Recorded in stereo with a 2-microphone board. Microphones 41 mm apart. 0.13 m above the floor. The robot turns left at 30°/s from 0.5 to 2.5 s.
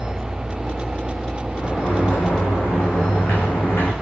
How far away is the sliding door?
About 10 m.